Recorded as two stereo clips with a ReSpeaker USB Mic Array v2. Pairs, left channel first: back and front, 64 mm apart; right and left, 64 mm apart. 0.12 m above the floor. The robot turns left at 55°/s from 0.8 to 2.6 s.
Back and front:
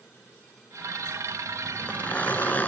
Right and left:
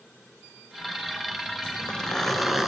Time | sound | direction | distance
1.6 | a zipper | 135° right | 0.8 m